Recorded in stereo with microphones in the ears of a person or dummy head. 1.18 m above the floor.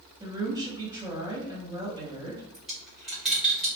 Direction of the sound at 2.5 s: 5° right (ahead or behind).